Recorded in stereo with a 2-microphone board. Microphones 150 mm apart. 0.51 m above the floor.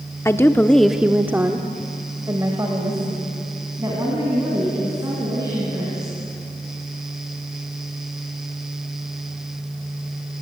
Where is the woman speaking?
15° left (ahead or behind), 1.0 m; by 6.1 s 25° right (ahead or behind), 6.5 m.